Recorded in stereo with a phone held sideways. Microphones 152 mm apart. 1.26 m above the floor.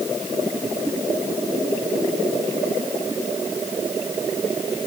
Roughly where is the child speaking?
No child speaking in this recording.